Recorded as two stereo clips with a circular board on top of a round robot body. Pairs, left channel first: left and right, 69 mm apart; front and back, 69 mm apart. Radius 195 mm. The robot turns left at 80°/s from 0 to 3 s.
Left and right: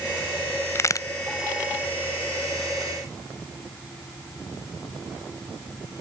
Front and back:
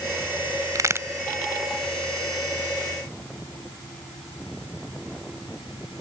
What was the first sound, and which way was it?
A crack, 145° left.